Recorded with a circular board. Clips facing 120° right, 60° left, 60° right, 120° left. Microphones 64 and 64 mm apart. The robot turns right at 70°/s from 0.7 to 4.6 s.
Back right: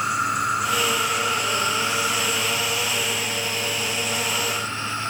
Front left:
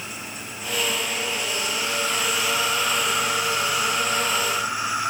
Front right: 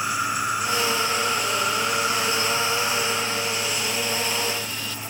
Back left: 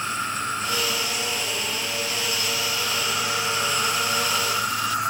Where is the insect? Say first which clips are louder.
Back right 14 dB, front right 2 dB; 140° right; by 5.1 s 135° left.